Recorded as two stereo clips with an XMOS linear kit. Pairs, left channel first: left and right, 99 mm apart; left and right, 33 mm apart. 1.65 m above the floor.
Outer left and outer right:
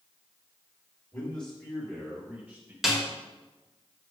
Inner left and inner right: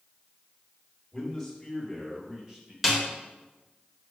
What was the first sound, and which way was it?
A man speaking, 15° left (ahead or behind).